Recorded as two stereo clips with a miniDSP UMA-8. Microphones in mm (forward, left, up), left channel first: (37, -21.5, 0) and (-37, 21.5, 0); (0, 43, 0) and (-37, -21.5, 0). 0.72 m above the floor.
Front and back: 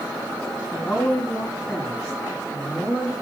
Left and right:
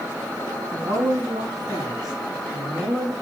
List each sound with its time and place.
0.7 s a woman speaking: 100° right, 6 m